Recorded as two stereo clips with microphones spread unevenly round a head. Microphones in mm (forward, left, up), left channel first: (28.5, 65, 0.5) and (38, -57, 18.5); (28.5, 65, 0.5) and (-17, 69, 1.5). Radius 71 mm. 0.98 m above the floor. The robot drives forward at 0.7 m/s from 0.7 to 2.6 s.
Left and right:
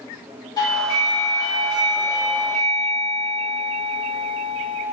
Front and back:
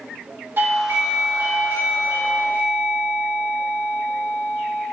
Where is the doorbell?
150° left, 3 m; by 4.8 s 160° left, 4 m.